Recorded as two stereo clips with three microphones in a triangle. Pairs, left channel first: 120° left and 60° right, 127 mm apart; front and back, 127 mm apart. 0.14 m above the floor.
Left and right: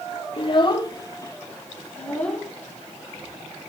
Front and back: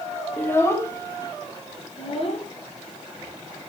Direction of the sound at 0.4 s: 75° left.